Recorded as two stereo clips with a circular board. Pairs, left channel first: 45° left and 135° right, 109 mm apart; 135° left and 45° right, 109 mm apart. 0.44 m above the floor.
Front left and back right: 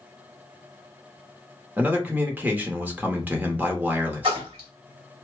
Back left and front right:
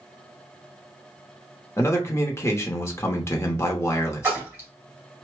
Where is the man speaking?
170° left, 0.8 m.